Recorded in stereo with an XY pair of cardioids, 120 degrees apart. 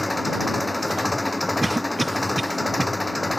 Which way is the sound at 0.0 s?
10° left.